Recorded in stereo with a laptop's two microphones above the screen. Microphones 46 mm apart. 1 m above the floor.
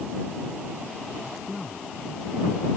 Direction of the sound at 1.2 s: 5° left (ahead or behind).